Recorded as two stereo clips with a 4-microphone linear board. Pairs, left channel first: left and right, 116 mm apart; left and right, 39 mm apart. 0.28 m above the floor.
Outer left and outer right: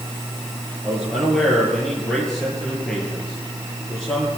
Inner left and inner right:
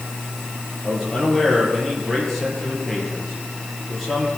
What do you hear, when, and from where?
0.8 s a man speaking: 10° left (ahead or behind), 6 m